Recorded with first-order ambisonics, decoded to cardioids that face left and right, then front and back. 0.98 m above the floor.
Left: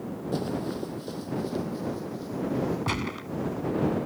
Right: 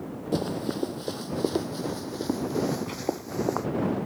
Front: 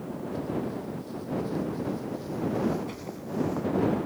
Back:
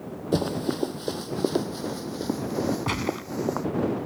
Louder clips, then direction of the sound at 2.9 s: Left 1 dB, back 10 dB; 145° left.